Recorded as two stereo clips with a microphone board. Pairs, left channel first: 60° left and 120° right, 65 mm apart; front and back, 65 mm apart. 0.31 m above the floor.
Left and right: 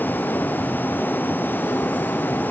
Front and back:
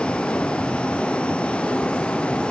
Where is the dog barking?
I don't hear a dog barking.